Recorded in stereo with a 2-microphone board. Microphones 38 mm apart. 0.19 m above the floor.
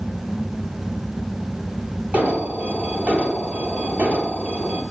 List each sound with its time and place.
2.1 s an alarm: 35° right (ahead or behind), 4.5 m